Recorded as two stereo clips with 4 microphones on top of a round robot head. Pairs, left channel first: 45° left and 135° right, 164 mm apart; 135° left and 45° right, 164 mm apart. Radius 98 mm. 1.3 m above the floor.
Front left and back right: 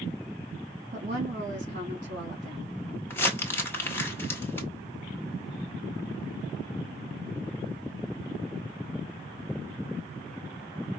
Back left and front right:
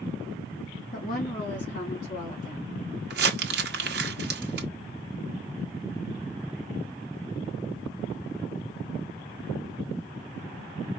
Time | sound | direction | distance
0.9 | a woman speaking | 175° left | 1.5 m
3.1 | crumpling | 30° right | 1.1 m